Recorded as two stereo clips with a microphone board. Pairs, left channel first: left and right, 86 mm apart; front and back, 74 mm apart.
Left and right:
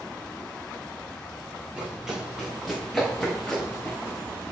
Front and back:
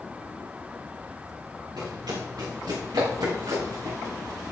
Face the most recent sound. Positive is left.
turn(degrees=165)